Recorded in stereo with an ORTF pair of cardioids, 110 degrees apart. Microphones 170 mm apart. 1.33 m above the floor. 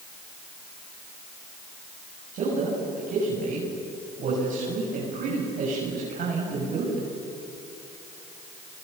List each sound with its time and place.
2.3 s a man speaking: 60° right, 7.5 m